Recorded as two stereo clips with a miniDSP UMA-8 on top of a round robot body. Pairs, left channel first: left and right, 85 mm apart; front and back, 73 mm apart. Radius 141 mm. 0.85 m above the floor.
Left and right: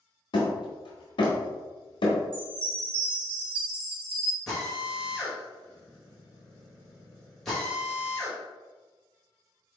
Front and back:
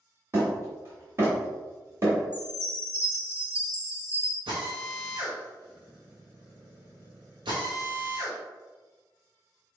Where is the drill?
175° left, 1.6 m.